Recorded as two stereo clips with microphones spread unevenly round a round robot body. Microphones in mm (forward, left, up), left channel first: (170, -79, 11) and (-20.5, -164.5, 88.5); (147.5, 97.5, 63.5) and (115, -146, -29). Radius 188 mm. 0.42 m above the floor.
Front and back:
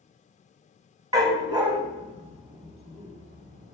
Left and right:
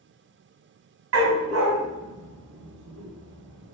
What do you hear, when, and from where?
1.1 s a dog barking: 75° right, 1.4 m; by 3.7 s 95° right, 2.5 m